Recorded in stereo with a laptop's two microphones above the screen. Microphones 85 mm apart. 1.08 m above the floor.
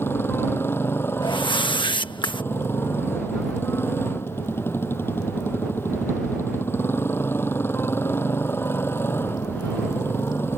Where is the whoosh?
70° left (ahead or behind).